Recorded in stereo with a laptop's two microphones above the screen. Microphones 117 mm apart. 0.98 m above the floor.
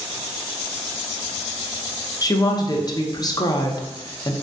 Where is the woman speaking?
35° left (ahead or behind), 0.6 m.